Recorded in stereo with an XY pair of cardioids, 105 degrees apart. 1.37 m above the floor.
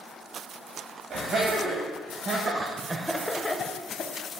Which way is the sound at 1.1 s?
65° right.